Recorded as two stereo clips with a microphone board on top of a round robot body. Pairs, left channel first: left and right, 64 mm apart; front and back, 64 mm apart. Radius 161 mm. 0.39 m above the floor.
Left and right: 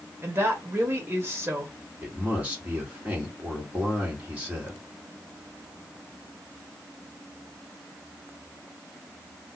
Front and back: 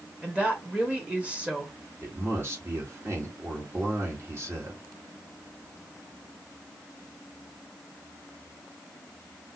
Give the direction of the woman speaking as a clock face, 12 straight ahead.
4 o'clock.